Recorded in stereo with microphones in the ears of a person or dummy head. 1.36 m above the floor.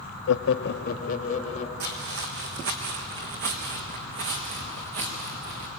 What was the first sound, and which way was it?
Laughter, 90° left.